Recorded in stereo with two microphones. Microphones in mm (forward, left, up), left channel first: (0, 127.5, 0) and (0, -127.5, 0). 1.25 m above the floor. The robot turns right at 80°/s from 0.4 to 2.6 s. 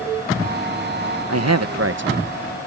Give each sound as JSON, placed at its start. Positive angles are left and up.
{"t": 1.3, "sound": "a man speaking", "azimuth_deg": -105}